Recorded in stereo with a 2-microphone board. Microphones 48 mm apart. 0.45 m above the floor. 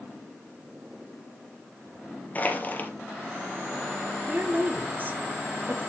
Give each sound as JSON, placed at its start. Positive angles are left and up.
{"t": 2.4, "sound": "crushing", "side_deg": 30, "distance_m": 2.0}
{"t": 4.3, "sound": "a woman speaking", "side_deg": -35, "distance_m": 1.3}